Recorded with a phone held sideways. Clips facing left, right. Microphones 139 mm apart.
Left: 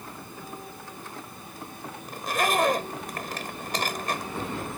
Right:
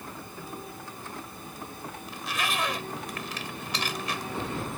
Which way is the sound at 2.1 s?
50° left (ahead or behind).